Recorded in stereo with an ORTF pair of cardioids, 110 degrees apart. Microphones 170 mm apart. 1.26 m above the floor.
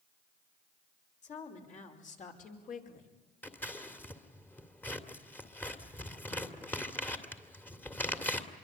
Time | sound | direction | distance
1.2 | a woman speaking | 45° left | 5.5 m
3.4 | scissors | 10° left | 2 m